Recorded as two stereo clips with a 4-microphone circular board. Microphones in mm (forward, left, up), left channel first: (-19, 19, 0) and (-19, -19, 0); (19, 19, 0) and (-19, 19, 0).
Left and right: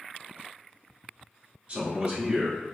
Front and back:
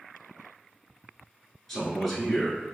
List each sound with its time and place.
1.7 s a man speaking: 80° right, 1.2 m